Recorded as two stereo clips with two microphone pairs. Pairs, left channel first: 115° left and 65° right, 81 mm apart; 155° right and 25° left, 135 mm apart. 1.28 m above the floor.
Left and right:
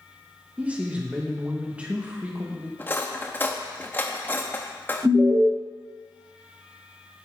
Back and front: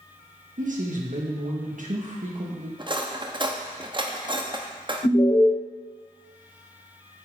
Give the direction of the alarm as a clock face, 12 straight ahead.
4 o'clock.